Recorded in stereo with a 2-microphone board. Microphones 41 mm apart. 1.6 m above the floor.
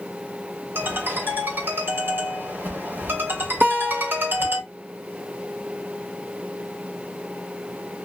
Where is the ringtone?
70° right (ahead or behind), 3 m.